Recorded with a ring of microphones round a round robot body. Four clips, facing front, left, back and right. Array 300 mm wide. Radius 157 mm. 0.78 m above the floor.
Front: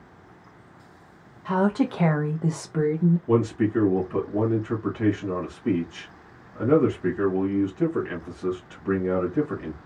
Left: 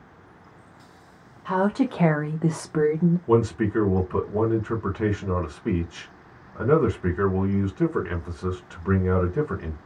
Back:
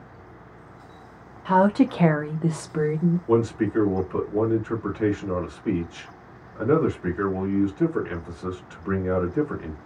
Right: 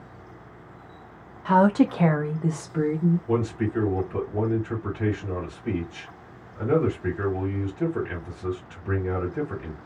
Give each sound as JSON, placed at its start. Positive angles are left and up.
{"t": 1.4, "sound": "a woman speaking", "azimuth_deg": -115, "distance_m": 0.7}
{"t": 3.3, "sound": "a man speaking", "azimuth_deg": 90, "distance_m": 1.3}